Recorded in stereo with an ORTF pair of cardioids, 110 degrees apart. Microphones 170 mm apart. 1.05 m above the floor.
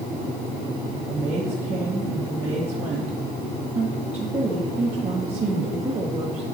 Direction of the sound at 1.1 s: 40° right.